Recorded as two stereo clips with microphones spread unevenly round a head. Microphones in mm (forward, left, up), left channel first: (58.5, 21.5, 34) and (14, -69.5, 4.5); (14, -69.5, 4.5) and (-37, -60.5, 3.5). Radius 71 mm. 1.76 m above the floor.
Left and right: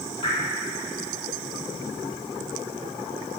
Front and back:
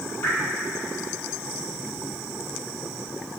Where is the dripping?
35° left, 3.5 m.